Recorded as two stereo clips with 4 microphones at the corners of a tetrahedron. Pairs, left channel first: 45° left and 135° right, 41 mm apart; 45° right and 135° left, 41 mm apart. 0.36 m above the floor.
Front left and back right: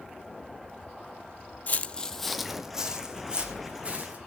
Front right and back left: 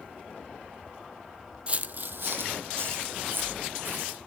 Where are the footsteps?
85° left, 0.5 m; by 4.2 s 165° left, 2 m.